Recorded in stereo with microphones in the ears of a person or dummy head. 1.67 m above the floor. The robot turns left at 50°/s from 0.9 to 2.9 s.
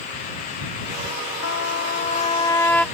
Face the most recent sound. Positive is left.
turn(degrees=0)